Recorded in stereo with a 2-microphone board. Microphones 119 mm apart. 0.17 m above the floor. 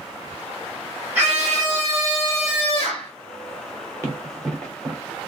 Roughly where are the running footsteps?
Right.